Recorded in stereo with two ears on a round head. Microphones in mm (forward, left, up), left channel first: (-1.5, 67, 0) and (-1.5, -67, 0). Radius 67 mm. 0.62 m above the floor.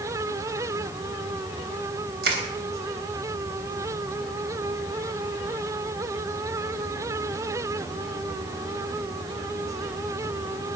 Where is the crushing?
75° right (ahead or behind), 3.5 m.